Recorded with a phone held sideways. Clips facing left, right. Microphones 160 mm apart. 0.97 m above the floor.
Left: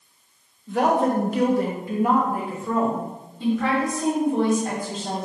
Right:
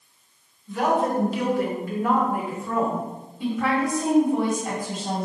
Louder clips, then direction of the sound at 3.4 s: Left 2 dB; 10° right (ahead or behind).